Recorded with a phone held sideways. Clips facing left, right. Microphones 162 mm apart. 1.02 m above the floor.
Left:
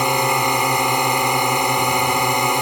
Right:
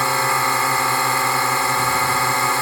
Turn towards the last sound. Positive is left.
turn(degrees=20)  # may be behind; listen again after turning